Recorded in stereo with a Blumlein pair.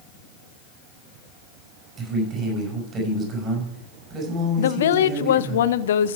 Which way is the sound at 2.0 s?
20° right.